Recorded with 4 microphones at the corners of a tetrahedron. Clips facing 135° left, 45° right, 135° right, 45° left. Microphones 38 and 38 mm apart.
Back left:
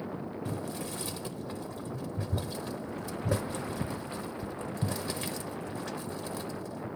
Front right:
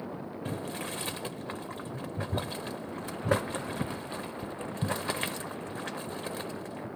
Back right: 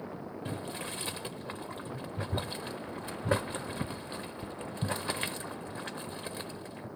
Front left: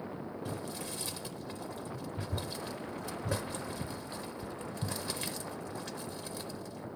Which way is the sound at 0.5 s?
90° right.